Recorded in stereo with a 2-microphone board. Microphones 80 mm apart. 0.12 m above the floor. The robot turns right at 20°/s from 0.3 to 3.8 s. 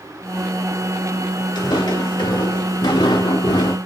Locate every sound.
1.6 s footsteps: 65° left (ahead or behind), 1.0 m; by 3.8 s 85° left, 0.8 m